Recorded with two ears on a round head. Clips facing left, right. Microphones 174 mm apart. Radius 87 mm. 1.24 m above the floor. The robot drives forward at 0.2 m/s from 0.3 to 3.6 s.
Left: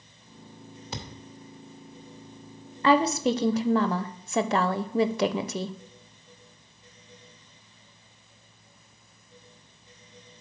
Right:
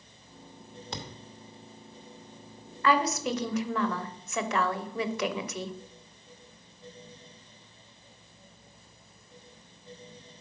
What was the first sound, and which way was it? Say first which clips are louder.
A thud: left 1 dB; 5° left (ahead or behind).